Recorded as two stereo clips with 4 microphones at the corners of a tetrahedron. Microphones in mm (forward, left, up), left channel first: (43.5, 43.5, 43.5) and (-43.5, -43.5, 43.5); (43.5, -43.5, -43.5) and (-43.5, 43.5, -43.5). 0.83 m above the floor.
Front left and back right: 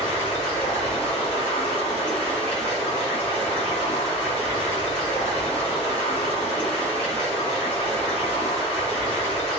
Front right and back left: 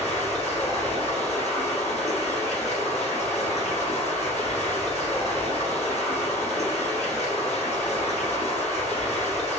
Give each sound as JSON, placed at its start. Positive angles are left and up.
{"t": 0.0, "sound": "running water", "azimuth_deg": -30, "distance_m": 1.0}